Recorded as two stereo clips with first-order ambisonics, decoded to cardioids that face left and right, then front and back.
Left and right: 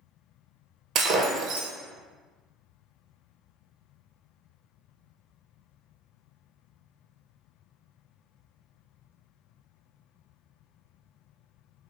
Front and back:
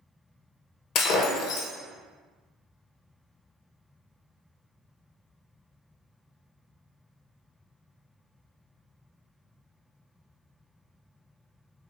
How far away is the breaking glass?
About 0.9 m.